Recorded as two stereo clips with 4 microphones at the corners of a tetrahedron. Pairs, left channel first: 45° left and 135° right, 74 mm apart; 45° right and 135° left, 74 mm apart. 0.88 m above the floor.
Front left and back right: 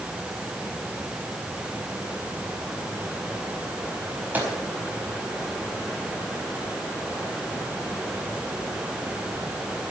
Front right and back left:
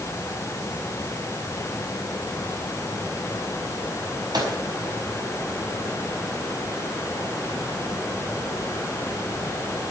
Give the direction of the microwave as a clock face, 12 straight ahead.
7 o'clock.